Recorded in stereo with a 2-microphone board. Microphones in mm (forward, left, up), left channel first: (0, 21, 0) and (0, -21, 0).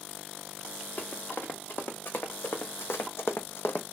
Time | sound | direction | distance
1.0 | running footsteps | 55° left (ahead or behind) | 2.0 m